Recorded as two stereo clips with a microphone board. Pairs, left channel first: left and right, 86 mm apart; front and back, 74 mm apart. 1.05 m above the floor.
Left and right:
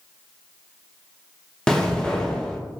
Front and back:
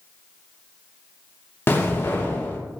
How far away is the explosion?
About 0.6 m.